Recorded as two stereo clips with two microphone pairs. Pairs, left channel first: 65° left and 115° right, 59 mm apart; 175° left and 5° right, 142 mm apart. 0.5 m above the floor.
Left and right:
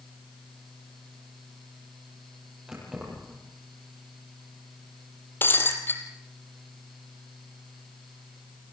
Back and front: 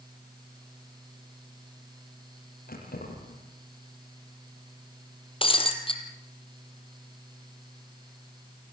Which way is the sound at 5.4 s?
120° left.